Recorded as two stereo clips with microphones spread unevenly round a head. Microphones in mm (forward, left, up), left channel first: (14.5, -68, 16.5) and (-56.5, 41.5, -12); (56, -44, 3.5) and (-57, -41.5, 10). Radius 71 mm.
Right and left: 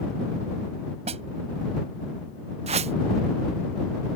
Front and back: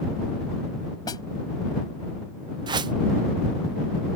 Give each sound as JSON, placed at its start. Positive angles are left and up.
{"t": 1.1, "sound": "a snare drum", "azimuth_deg": 65}
{"t": 2.7, "sound": "a whoosh", "azimuth_deg": 155}